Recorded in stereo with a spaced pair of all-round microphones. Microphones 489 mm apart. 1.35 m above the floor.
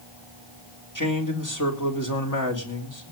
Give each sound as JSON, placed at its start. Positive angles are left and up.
{"t": 0.9, "sound": "a man speaking", "side_deg": 35, "distance_m": 3.5}